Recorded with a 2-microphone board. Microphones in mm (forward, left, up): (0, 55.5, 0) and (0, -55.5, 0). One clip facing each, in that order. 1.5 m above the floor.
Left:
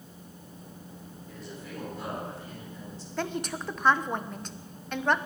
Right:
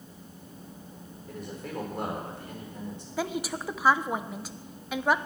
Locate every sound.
1.3 s a man speaking: 60° right (ahead or behind), 4.5 m
3.2 s a woman speaking: 5° right (ahead or behind), 0.8 m